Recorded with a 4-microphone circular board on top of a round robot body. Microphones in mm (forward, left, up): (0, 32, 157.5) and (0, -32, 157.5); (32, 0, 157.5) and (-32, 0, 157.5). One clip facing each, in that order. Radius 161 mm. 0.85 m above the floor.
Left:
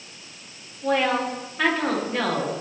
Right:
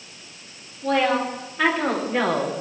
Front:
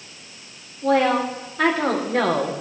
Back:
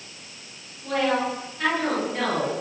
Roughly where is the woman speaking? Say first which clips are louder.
Right 1 dB, front 5 dB; ahead.